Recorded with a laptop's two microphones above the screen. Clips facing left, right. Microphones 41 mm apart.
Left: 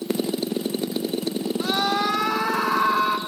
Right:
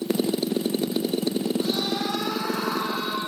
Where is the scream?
85° left, 3.5 m.